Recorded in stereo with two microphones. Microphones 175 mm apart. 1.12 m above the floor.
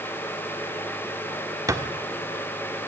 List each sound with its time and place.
1.7 s a thud: 20° right (ahead or behind), 1.4 m